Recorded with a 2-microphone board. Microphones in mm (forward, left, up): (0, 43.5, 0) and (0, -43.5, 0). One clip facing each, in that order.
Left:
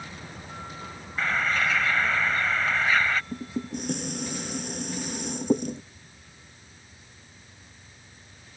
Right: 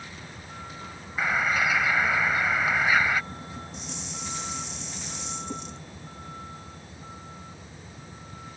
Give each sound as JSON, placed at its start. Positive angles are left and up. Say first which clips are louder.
{"t": 0.0, "sound": "a vehicle", "louder": "left 2 dB", "side_deg": 15}
{"t": 1.2, "sound": "a bird", "louder": "right 1 dB", "side_deg": -10}
{"t": 3.3, "sound": "dishes clattering", "louder": "left 7 dB", "side_deg": 55}